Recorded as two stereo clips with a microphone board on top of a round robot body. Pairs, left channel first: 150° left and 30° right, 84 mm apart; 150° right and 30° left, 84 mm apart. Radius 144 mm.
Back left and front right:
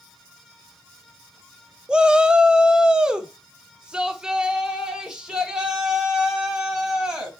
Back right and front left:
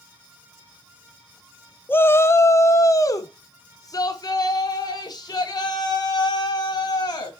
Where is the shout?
105° right, 0.9 m; by 7.3 s 110° right, 3.5 m.